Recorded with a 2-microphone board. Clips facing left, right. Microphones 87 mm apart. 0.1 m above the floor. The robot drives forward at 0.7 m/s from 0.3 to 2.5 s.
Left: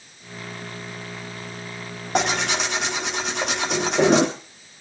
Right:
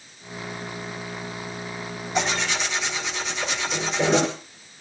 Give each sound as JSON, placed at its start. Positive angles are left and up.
{"t": 2.1, "sound": "tearing paper", "side_deg": 75, "distance_m": 4.0}